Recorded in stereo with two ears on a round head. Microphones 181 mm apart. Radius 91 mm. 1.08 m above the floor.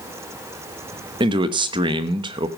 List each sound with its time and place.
1.2 s a man speaking: 25° right (ahead or behind), 1.0 m